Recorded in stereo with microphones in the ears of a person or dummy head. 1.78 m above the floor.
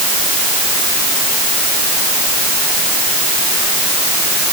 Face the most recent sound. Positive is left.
No sound to turn to.